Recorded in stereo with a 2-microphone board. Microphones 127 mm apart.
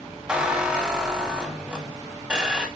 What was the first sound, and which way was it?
A squeak, 10° right (ahead or behind).